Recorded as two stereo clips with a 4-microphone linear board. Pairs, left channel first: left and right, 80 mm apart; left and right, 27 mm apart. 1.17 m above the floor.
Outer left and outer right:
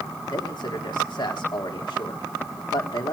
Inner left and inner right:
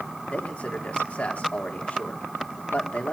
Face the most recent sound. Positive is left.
turn(degrees=75)  # may be behind; listen again after turning